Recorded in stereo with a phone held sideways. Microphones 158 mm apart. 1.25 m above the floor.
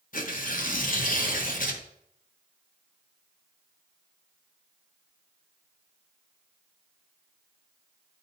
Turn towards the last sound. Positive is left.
turn(degrees=60)  # may be behind; listen again after turning